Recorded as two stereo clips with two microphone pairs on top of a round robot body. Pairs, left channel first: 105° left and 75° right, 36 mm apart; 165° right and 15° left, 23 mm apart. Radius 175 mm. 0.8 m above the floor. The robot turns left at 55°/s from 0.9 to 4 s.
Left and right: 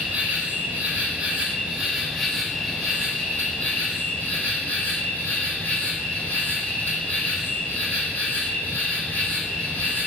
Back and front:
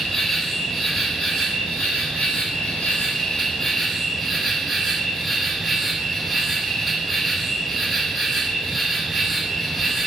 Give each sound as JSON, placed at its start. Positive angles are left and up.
{"t": 0.0, "sound": "an insect", "azimuth_deg": -100, "distance_m": 2.0}